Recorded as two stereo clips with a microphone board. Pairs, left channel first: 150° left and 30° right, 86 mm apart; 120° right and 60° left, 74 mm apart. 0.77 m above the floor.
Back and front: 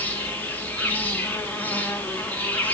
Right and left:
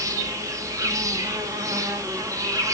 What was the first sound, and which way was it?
An insect, 85° left.